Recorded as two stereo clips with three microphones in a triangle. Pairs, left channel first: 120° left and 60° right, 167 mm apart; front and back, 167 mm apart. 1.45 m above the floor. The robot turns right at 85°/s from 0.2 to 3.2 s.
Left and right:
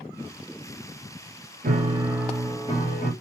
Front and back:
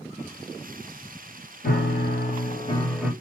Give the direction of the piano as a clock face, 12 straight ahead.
1 o'clock.